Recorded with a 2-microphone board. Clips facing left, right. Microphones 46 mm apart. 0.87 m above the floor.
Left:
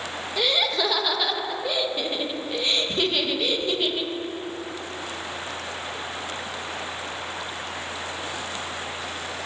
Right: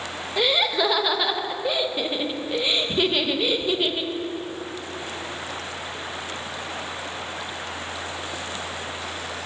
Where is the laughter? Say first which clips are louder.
Right 2 dB; 15° right (ahead or behind), 0.8 m.